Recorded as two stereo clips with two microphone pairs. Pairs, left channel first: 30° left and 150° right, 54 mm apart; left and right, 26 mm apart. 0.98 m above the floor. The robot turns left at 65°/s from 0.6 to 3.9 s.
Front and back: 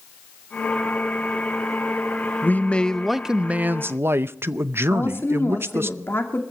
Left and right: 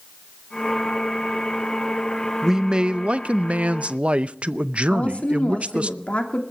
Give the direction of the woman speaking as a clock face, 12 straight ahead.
10 o'clock.